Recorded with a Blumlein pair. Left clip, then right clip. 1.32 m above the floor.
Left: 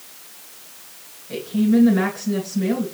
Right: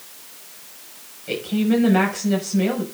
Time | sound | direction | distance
1.3 | a woman speaking | 50° right | 5.5 m